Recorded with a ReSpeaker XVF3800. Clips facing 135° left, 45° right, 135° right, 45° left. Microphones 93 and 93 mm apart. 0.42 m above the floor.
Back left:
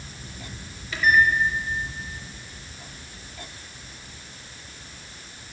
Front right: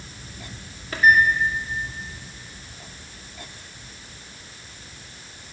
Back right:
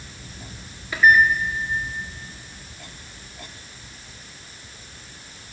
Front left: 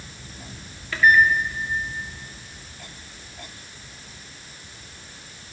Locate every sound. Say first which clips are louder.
0.9 s a microwave: front right 2 dB, back right 1 dB; 65° right, 0.8 m